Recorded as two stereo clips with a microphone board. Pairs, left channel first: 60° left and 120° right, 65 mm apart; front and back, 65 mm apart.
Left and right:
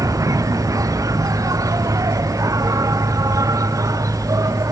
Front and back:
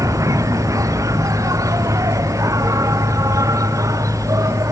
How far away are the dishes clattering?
I don't hear dishes clattering.